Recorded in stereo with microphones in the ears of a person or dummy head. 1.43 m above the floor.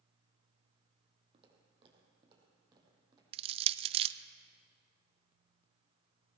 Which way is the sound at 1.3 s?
40° right (ahead or behind).